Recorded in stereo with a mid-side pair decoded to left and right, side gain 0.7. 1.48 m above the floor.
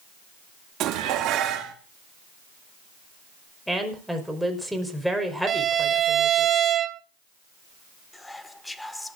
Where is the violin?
40° right, 0.7 m.